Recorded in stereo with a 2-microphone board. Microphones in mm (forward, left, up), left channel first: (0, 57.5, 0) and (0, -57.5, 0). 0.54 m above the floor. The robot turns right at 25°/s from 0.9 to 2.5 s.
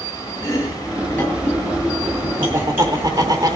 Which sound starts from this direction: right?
Laughter, at 2.4 s.